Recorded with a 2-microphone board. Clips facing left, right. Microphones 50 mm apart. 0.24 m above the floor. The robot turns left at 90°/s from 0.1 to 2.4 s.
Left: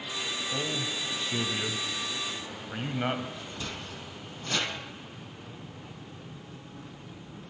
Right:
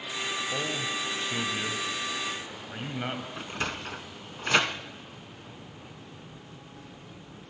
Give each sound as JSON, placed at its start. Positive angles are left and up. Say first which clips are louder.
{"t": 0.5, "sound": "a man speaking", "louder": "right 1 dB", "side_deg": -15, "distance_m": 0.9}
{"t": 3.4, "sound": "a sliding door", "louder": "right 5 dB", "side_deg": -70, "distance_m": 0.9}